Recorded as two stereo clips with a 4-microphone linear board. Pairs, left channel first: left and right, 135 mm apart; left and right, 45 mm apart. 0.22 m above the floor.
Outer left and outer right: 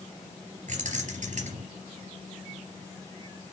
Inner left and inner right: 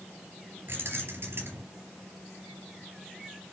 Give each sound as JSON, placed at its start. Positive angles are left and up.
{"t": 0.7, "sound": "keys jangling", "side_deg": -65, "distance_m": 3.0}